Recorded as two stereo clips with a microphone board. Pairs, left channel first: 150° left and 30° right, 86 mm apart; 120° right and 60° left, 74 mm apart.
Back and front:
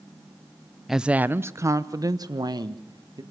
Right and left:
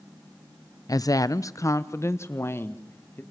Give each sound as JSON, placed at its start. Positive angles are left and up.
{"t": 0.9, "sound": "a woman speaking", "azimuth_deg": -115, "distance_m": 0.6}